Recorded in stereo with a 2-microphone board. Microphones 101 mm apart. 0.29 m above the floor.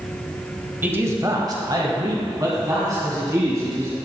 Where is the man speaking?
20° right (ahead or behind), 1.1 m; by 4.0 s 35° right (ahead or behind), 3.5 m.